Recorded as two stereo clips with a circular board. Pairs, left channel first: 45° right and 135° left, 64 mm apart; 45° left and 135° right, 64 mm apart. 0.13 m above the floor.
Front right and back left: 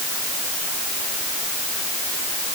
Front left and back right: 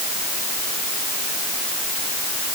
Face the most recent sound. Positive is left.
No sound to turn to.